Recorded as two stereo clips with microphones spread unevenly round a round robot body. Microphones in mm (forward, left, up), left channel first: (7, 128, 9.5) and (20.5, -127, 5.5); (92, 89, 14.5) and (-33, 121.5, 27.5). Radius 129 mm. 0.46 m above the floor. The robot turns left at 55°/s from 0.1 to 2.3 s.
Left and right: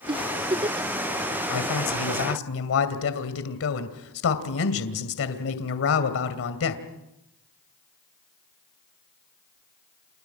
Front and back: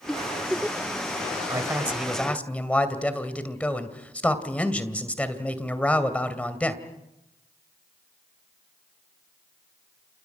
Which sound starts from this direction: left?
A man speaking, at 1.5 s.